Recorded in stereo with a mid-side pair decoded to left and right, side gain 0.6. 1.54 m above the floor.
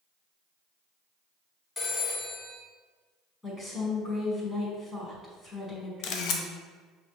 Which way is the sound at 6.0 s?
70° left.